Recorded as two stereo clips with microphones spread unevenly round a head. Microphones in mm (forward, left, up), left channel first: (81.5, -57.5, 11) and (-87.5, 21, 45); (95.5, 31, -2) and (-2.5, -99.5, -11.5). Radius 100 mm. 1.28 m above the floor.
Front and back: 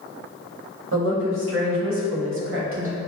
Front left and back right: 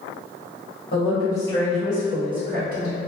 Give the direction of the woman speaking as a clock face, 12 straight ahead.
8 o'clock.